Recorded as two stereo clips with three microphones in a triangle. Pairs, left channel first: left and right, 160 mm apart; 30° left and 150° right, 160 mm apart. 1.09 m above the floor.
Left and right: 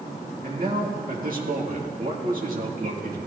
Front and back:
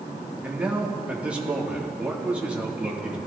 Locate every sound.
0.4 s a man speaking: 70° right, 1.8 m